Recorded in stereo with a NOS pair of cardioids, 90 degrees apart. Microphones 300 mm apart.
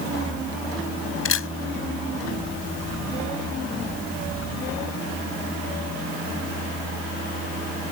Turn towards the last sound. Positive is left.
turn(degrees=45)